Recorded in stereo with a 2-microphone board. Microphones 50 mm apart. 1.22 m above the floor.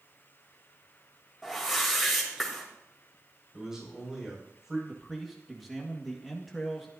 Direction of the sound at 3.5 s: 10° right (ahead or behind).